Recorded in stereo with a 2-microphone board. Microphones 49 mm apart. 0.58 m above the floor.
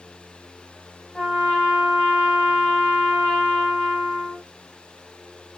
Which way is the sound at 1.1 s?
10° left (ahead or behind).